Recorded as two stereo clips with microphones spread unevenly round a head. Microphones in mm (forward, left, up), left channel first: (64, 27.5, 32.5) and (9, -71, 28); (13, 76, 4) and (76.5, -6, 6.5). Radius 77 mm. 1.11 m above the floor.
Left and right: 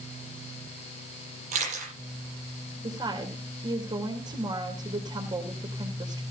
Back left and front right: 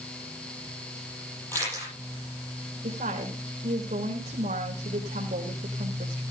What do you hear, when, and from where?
1.5 s a camera shutter: 155° right, 9 m
2.8 s a woman speaking: 70° right, 3.5 m